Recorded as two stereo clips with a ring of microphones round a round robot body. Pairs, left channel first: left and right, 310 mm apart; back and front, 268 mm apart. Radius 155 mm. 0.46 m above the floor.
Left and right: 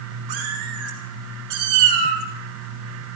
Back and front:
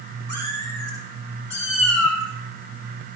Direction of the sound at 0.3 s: 60° right.